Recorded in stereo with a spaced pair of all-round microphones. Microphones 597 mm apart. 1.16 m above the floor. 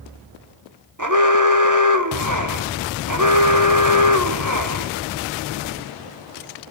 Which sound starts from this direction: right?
An alarm, at 1.0 s.